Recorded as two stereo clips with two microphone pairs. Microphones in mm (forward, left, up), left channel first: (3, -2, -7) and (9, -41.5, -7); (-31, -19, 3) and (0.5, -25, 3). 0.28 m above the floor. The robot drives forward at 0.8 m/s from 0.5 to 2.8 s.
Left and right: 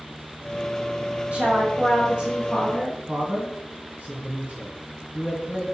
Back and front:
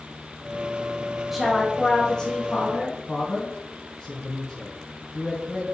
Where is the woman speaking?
85° right, 1.3 m; by 3.0 s 145° right, 1.7 m.